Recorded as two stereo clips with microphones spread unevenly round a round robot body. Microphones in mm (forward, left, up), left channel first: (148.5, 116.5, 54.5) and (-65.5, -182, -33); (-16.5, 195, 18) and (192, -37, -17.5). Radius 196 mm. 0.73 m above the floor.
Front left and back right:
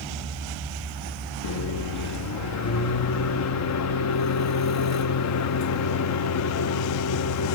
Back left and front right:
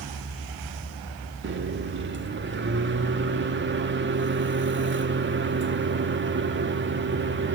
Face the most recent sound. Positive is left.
turn(degrees=0)